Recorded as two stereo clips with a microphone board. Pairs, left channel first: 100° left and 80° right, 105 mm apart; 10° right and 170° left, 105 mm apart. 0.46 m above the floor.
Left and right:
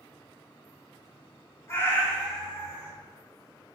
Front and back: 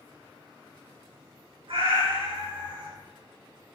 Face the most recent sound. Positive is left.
turn(degrees=-160)